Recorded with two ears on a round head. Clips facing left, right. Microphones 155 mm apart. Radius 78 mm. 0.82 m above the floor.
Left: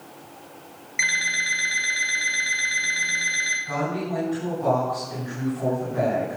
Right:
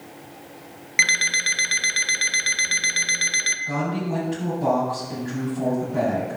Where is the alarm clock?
80° right, 1.1 m.